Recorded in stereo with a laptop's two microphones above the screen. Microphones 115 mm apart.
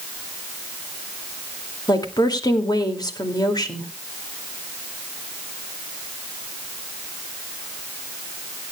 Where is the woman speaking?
35° left (ahead or behind), 2 m.